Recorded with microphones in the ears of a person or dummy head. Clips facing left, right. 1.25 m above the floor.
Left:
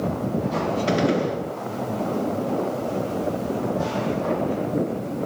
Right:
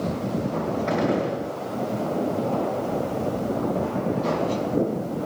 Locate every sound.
0.9 s a gunshot: 50° left (ahead or behind), 8 m